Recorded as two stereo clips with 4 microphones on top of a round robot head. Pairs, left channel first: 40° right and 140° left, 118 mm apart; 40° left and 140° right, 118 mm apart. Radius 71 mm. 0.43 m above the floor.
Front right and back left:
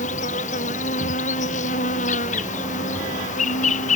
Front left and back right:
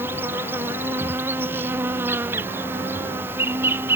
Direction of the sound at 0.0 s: 65° right.